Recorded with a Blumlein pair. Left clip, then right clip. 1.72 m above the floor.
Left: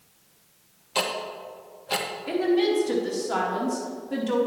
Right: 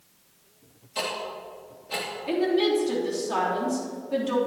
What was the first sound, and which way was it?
Ticking, 35° left.